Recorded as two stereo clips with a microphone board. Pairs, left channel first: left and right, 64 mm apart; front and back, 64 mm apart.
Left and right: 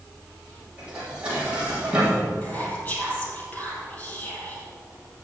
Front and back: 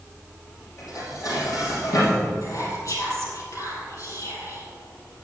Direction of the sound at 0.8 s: 15° right.